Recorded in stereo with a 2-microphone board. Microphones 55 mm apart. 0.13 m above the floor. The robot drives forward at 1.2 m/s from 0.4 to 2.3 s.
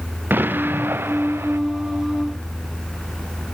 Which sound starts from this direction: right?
An explosion, at 0.3 s.